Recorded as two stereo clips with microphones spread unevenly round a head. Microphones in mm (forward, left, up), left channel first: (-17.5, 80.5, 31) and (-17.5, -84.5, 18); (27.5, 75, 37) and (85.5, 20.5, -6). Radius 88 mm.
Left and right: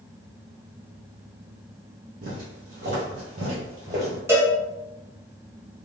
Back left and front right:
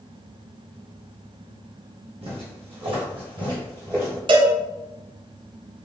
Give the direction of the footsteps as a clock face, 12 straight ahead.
2 o'clock.